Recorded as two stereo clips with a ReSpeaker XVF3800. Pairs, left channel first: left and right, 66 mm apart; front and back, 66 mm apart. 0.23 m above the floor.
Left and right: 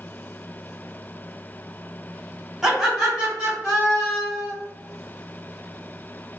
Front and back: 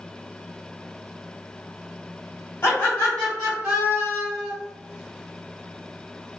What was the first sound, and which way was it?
Laughter, 5° right.